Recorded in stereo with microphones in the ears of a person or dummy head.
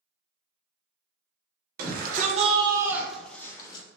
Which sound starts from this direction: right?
A shout, at 1.8 s.